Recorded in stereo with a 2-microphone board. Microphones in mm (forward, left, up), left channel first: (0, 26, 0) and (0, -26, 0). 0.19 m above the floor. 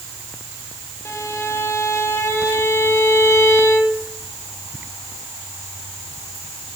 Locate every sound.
1.1 s a violin: 55° left (ahead or behind), 3.5 m